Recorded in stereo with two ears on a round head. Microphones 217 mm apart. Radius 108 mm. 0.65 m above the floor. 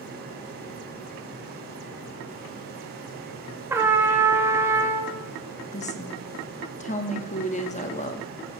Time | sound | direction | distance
3.7 | a trumpet | 10° right (ahead or behind) | 1.2 m
5.7 | a woman speaking | 30° left (ahead or behind) | 1.1 m